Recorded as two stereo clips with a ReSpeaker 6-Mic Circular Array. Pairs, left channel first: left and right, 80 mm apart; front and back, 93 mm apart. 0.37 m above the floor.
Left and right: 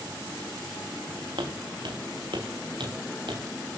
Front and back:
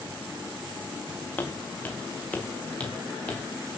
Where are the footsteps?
70° right, 5 m; by 3.4 s 75° right, 6 m.